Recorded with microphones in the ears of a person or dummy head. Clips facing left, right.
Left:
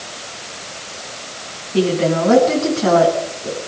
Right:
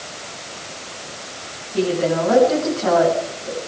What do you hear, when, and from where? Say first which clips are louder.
1.7 s a woman speaking: left 3 dB; 45° left (ahead or behind), 10 m